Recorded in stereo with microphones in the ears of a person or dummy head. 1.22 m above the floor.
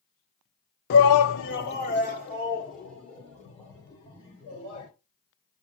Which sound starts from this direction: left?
A shout, at 0.9 s.